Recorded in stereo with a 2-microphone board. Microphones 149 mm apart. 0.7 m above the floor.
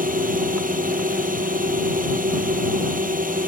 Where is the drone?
65° right (ahead or behind).